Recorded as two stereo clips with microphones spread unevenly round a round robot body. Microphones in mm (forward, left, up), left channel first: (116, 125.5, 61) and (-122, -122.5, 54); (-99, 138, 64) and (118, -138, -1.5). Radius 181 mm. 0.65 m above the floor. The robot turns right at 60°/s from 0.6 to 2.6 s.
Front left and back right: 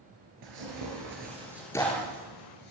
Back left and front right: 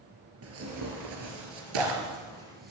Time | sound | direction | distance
0.4 | tearing paper | 105° right | 3.5 m